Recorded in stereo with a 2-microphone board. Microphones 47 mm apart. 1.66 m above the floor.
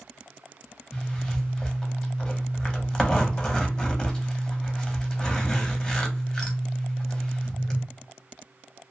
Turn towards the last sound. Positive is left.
turn(degrees=15)  # may be behind; listen again after turning